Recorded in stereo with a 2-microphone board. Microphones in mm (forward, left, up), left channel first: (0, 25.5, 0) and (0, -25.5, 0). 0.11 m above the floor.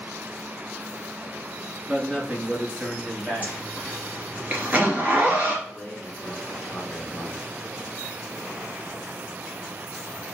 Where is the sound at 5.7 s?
15° left (ahead or behind), 1.5 m.